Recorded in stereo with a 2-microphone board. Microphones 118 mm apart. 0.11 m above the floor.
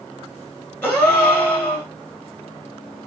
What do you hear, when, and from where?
0.8 s a gasp: 15° left (ahead or behind), 1.3 m